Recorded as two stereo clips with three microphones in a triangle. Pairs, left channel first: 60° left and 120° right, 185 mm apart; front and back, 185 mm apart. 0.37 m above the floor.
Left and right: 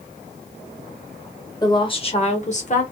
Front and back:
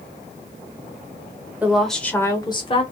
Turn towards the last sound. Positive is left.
turn(degrees=45)